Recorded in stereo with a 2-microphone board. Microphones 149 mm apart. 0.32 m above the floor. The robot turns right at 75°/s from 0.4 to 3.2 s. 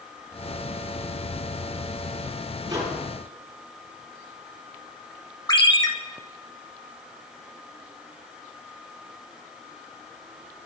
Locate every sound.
2.7 s a microwave: 30° right (ahead or behind), 8 m; by 3.0 s 5° right (ahead or behind), 8 m
5.5 s a ringtone: 30° left (ahead or behind), 1.4 m